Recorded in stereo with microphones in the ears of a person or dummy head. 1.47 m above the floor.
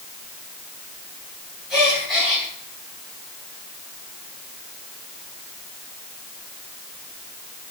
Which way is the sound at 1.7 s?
Centre (ahead or behind).